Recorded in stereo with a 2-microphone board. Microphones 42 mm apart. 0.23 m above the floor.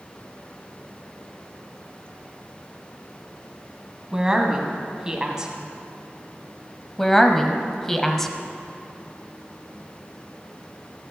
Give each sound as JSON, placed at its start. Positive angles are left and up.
{"t": 4.1, "sound": "a woman speaking", "side_deg": -15, "distance_m": 1.7}
{"t": 7.0, "sound": "a woman speaking", "side_deg": 5, "distance_m": 0.9}